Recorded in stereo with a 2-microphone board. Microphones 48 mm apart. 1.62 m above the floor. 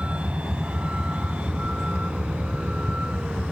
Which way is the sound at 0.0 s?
25° right (ahead or behind).